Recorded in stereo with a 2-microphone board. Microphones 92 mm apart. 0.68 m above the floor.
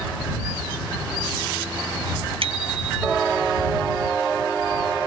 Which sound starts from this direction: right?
A bicycle bell, at 2.4 s.